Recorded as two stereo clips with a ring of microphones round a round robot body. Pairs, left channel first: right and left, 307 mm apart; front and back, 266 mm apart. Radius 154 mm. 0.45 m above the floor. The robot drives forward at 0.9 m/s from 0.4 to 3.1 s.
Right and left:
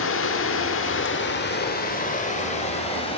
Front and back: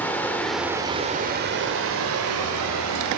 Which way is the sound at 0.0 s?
80° right.